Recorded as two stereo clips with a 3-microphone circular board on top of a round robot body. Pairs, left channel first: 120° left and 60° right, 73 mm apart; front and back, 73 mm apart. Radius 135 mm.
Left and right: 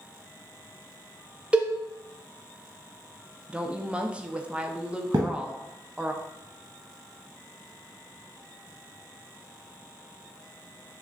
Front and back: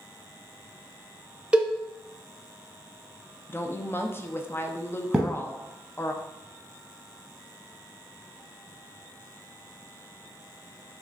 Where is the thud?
95° right, 0.9 m.